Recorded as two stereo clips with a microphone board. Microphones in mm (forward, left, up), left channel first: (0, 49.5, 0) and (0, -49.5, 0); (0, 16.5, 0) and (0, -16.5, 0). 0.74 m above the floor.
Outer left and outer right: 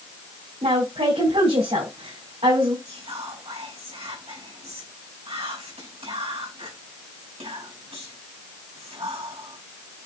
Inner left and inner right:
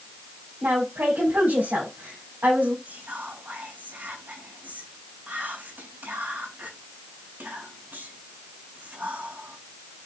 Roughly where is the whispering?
Right.